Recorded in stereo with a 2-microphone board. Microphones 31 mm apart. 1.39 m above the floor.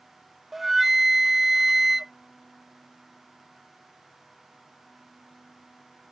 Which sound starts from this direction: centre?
A flute, at 0.5 s.